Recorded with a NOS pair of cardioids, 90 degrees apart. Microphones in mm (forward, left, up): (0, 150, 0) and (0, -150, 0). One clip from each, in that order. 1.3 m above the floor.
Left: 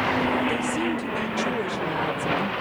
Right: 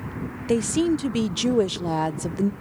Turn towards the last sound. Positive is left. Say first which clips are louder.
# right 3 dB
turn(degrees=-45)